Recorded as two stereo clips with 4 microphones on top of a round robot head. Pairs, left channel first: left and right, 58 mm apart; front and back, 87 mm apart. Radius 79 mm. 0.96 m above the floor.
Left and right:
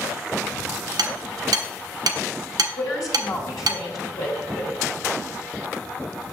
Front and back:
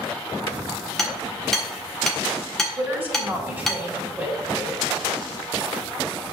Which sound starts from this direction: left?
A woman speaking, at 2.8 s.